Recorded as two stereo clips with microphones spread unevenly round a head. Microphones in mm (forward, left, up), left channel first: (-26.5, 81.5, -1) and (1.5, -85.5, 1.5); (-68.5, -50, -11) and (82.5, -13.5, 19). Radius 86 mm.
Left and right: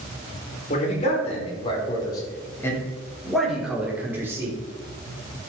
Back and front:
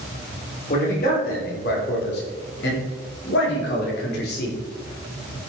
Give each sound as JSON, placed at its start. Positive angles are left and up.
{"t": 0.7, "sound": "a man speaking", "azimuth_deg": 150, "distance_m": 5.0}